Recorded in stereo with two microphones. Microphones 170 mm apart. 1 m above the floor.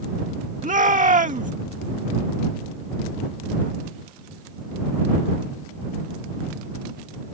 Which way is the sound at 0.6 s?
50° right (ahead or behind).